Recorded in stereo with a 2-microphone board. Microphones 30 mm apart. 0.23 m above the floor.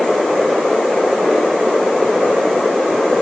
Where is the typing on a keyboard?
No typing on a keyboard in this recording.